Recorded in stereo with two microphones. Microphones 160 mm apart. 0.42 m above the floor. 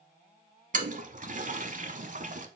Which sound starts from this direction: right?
A toilet flushing, at 0.7 s.